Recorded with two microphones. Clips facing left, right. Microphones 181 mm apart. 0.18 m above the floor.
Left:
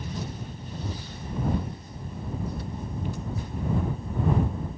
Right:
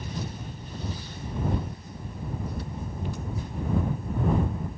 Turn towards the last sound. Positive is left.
No sound to turn to.